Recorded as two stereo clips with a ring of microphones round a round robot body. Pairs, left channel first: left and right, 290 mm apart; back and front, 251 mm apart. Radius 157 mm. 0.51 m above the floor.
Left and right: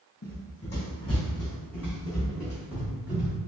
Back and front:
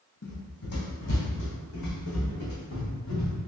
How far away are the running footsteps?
About 1.5 m.